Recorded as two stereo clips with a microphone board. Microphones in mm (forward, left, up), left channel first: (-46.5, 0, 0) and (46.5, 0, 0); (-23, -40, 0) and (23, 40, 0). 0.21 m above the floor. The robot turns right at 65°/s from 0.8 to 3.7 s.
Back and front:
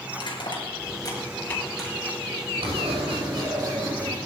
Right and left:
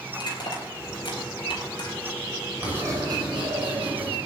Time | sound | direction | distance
0.1 | crushing | 150° right | 4.5 m
2.6 | writing | 10° right | 8 m